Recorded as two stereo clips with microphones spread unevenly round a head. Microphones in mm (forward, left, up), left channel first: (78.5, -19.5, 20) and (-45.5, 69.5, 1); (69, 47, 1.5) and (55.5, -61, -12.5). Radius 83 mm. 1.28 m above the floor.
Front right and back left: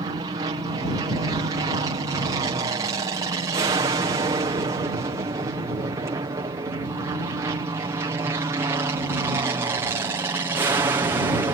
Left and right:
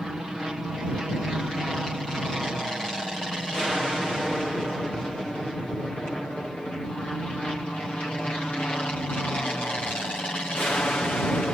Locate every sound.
0.0 s an aircraft: straight behind; by 11.5 s 155° left